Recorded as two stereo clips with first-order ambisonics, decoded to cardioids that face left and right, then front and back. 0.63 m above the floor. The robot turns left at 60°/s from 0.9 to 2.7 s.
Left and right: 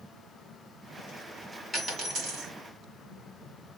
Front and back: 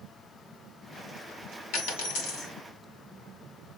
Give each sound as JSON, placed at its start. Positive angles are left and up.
{"t": 1.7, "sound": "a dropped coin", "azimuth_deg": -5, "distance_m": 1.6}